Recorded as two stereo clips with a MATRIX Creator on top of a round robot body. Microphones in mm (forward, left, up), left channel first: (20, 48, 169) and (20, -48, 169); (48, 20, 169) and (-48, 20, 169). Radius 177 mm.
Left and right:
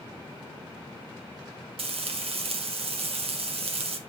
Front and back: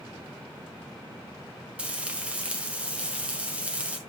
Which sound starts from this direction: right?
Frying, at 1.8 s.